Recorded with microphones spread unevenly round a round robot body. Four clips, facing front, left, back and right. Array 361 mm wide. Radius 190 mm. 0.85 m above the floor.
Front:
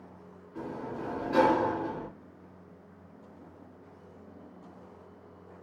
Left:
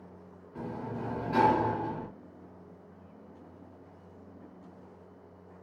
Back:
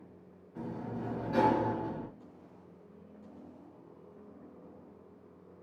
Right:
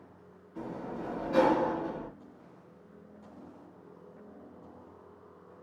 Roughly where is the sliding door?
Ahead left.